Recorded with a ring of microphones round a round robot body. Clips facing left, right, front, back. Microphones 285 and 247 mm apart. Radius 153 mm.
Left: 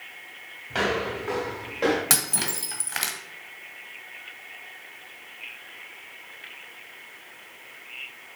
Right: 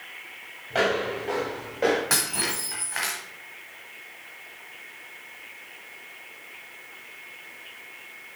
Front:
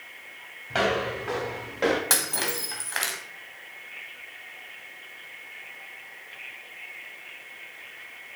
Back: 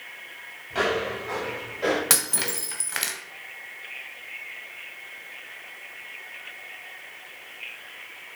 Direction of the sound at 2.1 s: 125° left.